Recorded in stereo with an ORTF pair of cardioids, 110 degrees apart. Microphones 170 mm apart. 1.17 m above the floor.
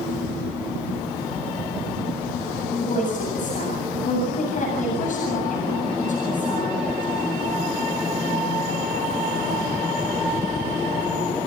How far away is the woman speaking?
About 8 m.